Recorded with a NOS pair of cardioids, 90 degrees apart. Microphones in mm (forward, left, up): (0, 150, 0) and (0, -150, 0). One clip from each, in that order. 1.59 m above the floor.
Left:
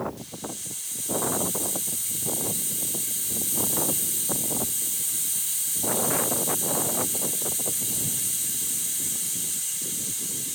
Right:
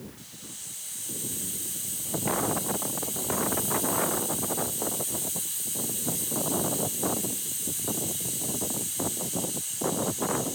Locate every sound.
0.2 s a hiss: 55° left, 5.5 m